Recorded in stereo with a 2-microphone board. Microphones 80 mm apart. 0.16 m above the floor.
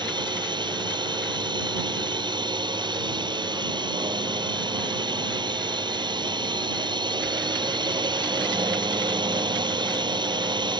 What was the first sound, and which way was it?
A drone, 70° right (ahead or behind).